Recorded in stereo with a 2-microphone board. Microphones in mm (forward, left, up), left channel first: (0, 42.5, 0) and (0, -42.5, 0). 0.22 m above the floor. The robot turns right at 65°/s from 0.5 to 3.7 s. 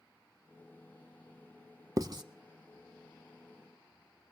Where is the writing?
45° right (ahead or behind), 0.5 m; by 2.2 s 55° right (ahead or behind), 0.5 m.